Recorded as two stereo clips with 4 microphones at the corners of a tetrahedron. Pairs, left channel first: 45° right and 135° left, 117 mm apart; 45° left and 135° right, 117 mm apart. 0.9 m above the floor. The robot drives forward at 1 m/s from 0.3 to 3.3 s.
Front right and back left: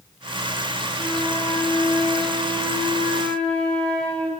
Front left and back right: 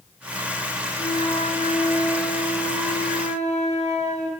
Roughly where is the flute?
Ahead left.